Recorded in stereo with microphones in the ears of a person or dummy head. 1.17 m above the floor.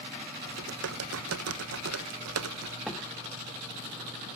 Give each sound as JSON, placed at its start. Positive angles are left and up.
{"t": 0.5, "sound": "typing on a keyboard", "side_deg": -70, "distance_m": 1.0}
{"t": 2.9, "sound": "a door slam", "side_deg": 0, "distance_m": 1.7}